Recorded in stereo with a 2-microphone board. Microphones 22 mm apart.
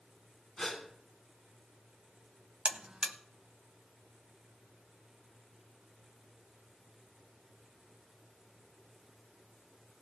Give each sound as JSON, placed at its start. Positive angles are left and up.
{"t": 0.6, "sound": "a gasp", "side_deg": 15, "distance_m": 3.0}
{"t": 2.6, "sound": "a buzzer", "side_deg": -55, "distance_m": 0.8}